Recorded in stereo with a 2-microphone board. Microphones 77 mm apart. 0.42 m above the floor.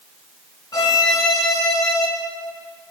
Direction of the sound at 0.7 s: 55° left (ahead or behind).